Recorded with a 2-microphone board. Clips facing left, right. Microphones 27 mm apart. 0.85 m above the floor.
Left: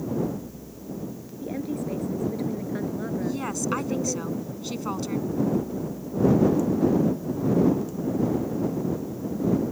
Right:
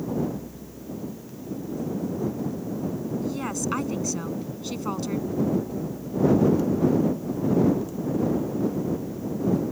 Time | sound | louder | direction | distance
1.4 | a woman speaking | left 2 dB | 85° left | ?
3.2 | a woman speaking | even | centre (ahead or behind) | ?